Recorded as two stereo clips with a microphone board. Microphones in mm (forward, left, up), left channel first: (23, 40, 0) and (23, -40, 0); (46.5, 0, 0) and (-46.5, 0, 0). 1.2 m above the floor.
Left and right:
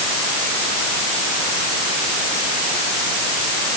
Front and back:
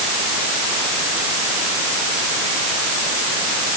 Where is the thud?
No thud in this recording.